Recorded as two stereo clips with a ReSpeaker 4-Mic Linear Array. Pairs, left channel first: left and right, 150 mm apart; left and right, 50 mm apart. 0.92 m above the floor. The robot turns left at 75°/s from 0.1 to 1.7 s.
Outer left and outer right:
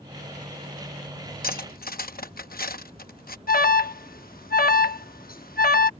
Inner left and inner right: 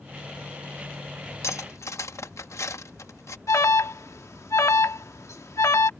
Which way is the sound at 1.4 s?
75° left (ahead or behind).